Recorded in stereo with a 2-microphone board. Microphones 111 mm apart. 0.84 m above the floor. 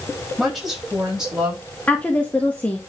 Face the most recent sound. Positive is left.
turn(degrees=15)  # may be behind; listen again after turning